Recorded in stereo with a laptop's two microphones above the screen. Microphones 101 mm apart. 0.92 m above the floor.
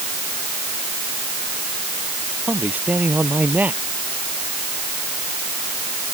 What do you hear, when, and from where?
2.5 s a man speaking: 15° right (ahead or behind)